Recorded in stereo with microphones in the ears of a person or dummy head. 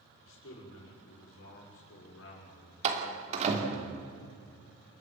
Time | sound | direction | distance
0.2 | a man speaking | 75° left (ahead or behind) | 7 m
2.8 | a door slam | 35° right (ahead or behind) | 3 m